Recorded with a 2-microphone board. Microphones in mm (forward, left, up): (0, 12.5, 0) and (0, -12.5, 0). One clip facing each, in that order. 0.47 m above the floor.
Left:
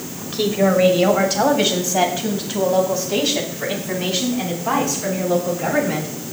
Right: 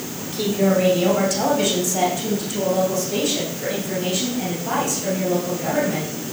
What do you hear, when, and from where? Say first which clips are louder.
0.3 s a woman speaking: left 2 dB; 30° left (ahead or behind), 2 m; by 6.1 s 40° left (ahead or behind), 5.5 m